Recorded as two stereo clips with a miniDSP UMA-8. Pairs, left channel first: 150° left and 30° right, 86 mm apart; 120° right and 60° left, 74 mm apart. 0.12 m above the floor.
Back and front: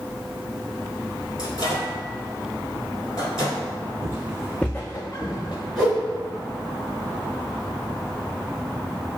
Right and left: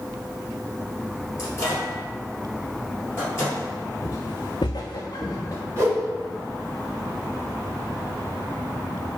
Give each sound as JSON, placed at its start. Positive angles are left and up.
{"t": 1.4, "sound": "a microwave", "azimuth_deg": -170, "distance_m": 1.8}
{"t": 4.0, "sound": "footsteps", "azimuth_deg": -80, "distance_m": 0.6}
{"t": 5.8, "sound": "a whoosh", "azimuth_deg": 50, "distance_m": 1.8}